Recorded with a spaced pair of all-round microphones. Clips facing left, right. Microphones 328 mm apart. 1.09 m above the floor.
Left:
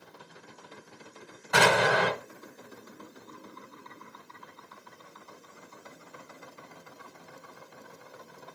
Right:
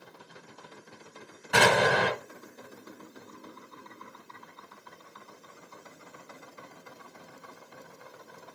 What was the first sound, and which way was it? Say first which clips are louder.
An explosion: right 1 dB; 40° right (ahead or behind).